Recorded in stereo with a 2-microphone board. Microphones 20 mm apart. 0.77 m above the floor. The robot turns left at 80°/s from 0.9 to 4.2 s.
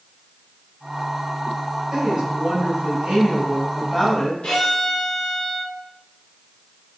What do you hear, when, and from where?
1.9 s a woman speaking: 35° right, 3.5 m; by 4.3 s 145° left, 3.5 m
4.4 s a violin: 65° left (ahead or behind), 2 m